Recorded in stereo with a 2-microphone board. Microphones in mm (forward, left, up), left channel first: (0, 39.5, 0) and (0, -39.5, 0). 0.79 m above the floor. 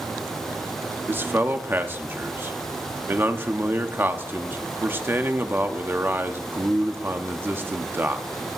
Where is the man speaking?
25° right (ahead or behind), 1.1 m.